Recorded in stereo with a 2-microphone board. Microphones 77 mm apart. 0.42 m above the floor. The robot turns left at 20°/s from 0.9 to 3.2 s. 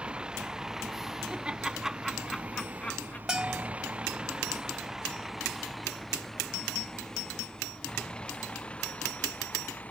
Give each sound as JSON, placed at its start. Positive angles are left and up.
{"t": 0.0, "sound": "a vehicle", "side_deg": -15}
{"t": 1.3, "sound": "laughter", "side_deg": -15}
{"t": 3.3, "sound": "a bell", "side_deg": -10}